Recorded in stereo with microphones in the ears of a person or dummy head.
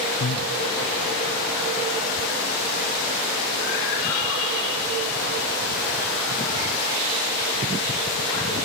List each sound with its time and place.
0.2 s breathing: 30° left (ahead or behind), 0.6 m